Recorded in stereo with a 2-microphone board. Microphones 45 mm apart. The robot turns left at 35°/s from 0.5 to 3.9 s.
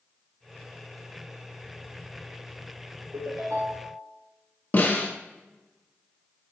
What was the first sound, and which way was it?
A ringtone, 70° right (ahead or behind).